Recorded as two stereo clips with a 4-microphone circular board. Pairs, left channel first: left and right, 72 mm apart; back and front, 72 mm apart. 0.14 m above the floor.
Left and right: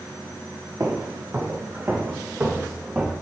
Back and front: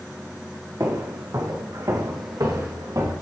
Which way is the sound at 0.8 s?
45° right.